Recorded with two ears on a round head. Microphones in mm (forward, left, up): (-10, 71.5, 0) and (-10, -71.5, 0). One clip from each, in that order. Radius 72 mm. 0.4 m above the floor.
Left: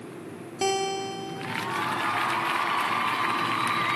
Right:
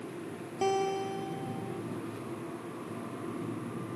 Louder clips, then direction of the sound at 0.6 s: Left 3 dB; 55° left (ahead or behind).